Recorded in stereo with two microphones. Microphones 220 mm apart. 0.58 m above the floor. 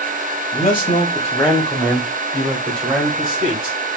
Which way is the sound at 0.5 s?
30° left (ahead or behind).